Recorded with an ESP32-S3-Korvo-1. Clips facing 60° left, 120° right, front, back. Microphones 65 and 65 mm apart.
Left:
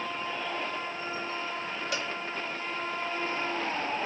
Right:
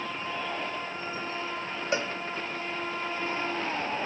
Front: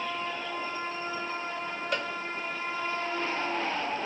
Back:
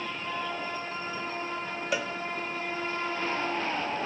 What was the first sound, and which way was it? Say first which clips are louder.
A cowbell: right 6 dB, back 2 dB; 105° right.